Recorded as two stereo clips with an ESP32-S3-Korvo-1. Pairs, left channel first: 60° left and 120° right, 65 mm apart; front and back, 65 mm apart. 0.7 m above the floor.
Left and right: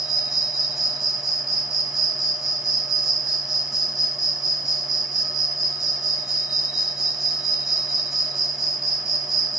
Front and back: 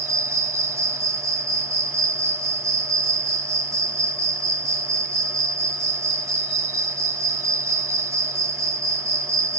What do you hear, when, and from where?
0.0 s an insect: 160° left, 1.1 m